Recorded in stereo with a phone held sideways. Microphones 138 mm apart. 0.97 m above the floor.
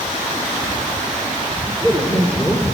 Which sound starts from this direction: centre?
A man speaking, at 1.7 s.